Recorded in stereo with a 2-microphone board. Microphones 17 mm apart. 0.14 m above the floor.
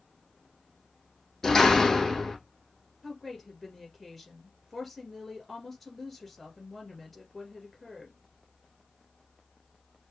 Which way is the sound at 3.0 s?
20° left (ahead or behind).